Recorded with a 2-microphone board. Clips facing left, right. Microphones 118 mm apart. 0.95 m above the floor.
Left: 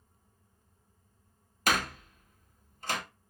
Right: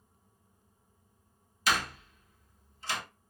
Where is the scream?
No scream in this recording.